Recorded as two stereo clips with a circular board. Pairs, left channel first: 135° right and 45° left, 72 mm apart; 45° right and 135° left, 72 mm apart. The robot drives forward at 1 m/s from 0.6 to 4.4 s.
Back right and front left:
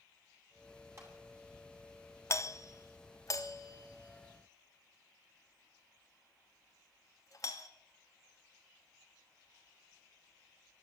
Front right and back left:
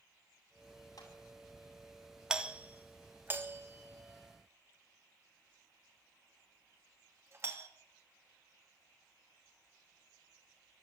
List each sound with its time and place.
1.0 s a clap: 5° right, 8 m
2.3 s a doorbell: 150° right, 1.0 m; by 7.7 s 175° right, 3 m